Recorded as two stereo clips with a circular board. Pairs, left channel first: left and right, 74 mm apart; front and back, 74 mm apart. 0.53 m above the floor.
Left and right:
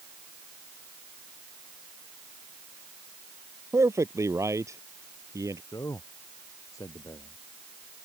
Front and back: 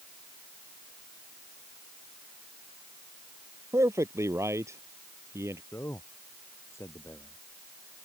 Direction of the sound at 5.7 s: 50° left.